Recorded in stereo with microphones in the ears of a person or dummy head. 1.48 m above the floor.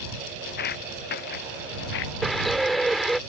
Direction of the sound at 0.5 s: 50° left (ahead or behind).